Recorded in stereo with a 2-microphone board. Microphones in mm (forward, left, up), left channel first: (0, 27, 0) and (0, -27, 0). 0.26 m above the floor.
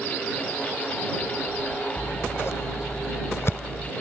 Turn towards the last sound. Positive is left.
turn(degrees=50)  # may be behind; listen again after turning